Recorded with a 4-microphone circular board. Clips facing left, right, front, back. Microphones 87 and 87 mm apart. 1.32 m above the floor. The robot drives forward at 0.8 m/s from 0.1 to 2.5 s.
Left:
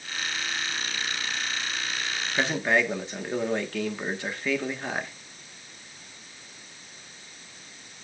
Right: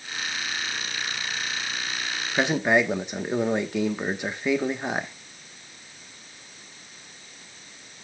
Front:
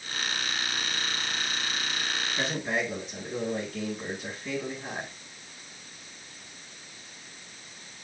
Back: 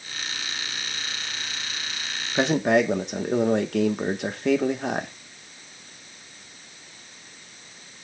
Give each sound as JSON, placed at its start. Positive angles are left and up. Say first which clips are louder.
{"t": 2.4, "sound": "a man speaking", "louder": "right 3 dB, back 12 dB", "azimuth_deg": -160, "distance_m": 1.5}